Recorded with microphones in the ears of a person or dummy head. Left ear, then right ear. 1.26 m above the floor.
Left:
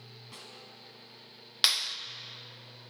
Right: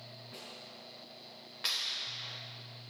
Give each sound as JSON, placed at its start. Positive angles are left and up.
{"t": 0.3, "sound": "a snare drum", "side_deg": 75, "distance_m": 3.5}
{"t": 1.6, "sound": "a clap", "side_deg": 60, "distance_m": 0.8}